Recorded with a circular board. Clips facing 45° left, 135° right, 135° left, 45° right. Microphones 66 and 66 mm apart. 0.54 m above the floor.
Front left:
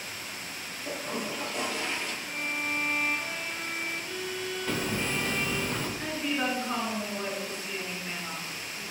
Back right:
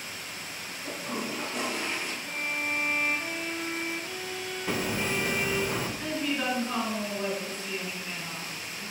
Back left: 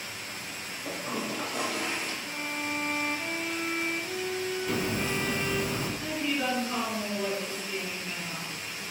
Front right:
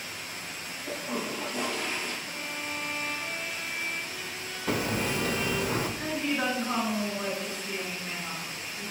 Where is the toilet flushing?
145° left, 2.5 m.